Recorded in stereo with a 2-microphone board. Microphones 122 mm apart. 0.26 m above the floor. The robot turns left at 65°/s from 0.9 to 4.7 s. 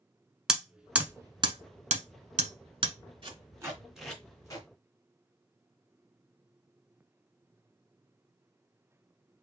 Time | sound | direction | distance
0.5 | hammering | 5° right (ahead or behind) | 0.8 m
3.2 | tape being pulled | 45° right (ahead or behind) | 2.5 m